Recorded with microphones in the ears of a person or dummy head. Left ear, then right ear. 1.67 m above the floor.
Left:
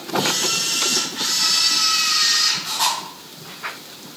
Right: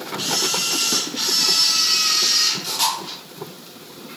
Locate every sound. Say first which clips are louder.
0.2 s a camera shutter: left 1 dB; 30° right (ahead or behind), 3 m